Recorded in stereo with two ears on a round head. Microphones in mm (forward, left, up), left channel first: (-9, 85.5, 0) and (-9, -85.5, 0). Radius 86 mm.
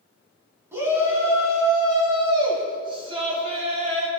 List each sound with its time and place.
0.7 s a shout: 15° right (ahead or behind), 4.5 m; by 4.1 s 35° right (ahead or behind), 3.5 m